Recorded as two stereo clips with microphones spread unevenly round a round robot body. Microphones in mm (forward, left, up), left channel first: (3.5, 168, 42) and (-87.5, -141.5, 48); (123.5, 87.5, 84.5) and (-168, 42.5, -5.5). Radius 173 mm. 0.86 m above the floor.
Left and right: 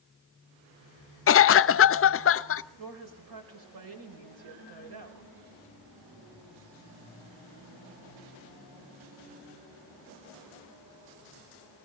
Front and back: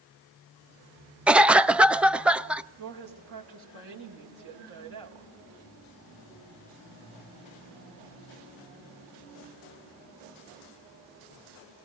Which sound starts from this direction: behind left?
A cough, at 1.3 s.